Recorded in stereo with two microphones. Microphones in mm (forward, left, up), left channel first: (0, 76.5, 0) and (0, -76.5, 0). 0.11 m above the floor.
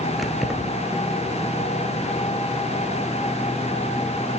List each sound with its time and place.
0.2 s keys jangling: centre (ahead or behind), 1.4 m